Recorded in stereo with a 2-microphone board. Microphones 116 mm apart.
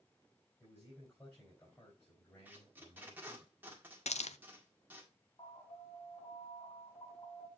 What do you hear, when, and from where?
0.6 s a man speaking: 25° left (ahead or behind), 4 m
2.5 s tape being pulled: 15° right (ahead or behind), 1.8 m
4.1 s a hiss: 75° left (ahead or behind), 0.5 m
5.4 s an alarm: 50° left (ahead or behind), 4.5 m